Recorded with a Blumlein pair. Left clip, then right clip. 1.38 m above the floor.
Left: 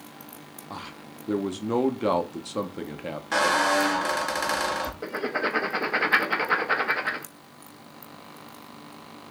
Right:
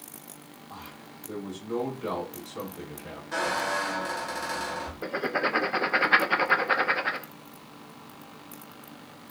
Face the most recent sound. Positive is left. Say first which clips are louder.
# right 3 dB
turn(degrees=-5)